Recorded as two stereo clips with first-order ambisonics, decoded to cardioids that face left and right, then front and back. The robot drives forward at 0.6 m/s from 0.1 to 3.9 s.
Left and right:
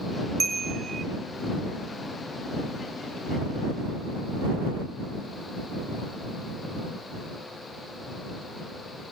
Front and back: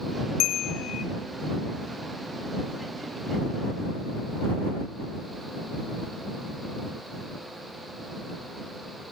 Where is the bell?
20° right, 0.8 m; by 1.0 s 40° right, 0.5 m.